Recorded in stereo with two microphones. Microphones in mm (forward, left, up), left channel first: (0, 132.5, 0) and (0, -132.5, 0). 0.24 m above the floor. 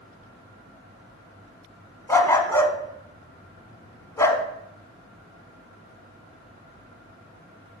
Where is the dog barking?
10° left (ahead or behind), 0.6 m.